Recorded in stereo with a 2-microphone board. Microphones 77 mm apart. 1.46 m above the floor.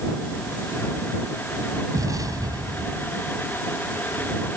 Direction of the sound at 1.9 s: 50° right (ahead or behind).